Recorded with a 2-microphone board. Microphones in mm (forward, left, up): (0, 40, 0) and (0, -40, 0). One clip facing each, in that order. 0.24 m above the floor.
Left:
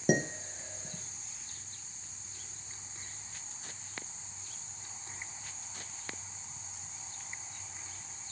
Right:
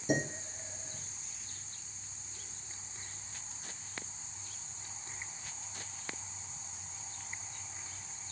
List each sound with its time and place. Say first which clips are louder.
0.1 s dishes clattering: left 3 dB; 60° left (ahead or behind), 2.5 m